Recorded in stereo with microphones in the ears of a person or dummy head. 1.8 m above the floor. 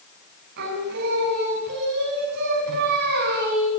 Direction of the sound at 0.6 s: 60° right (ahead or behind).